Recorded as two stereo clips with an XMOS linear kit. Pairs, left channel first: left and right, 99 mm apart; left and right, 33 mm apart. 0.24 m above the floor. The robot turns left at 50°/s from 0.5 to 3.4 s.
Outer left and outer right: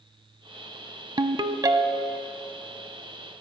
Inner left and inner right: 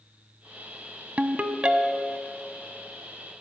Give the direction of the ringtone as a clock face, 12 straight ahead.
4 o'clock.